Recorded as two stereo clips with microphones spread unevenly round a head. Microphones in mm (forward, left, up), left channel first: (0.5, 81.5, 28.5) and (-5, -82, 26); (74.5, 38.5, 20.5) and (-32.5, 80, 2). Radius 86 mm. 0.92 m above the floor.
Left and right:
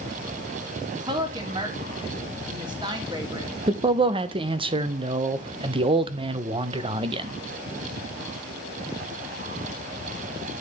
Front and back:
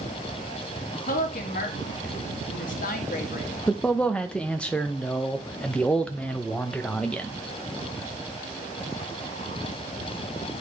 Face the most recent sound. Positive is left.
turn(degrees=-115)